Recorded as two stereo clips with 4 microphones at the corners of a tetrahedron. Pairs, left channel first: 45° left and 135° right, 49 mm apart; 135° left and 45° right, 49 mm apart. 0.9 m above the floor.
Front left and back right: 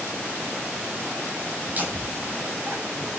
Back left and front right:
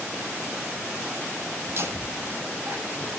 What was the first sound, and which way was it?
Laughter, 80° right.